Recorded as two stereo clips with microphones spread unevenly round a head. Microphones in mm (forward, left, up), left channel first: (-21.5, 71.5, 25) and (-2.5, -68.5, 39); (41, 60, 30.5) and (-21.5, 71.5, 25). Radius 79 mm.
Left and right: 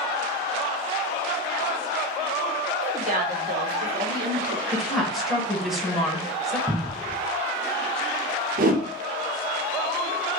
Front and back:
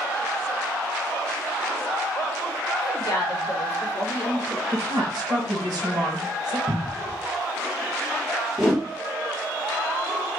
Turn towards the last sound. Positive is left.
turn(degrees=-105)